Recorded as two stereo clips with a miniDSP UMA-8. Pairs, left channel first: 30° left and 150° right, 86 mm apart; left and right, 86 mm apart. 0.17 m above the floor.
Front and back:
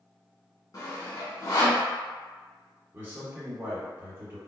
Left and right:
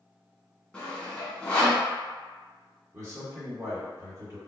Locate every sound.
0.7 s sawing: 15° left, 0.9 m
2.9 s a man speaking: 100° right, 1.9 m